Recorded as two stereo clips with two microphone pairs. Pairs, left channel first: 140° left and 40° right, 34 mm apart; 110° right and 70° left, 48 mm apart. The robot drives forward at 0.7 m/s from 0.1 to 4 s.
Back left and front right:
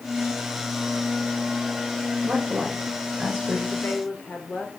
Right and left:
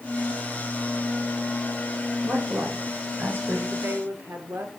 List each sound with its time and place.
2.2 s a woman speaking: 25° left, 8 m
3.7 s a woman speaking: 90° left, 2.5 m; by 4.8 s 100° left, 2.5 m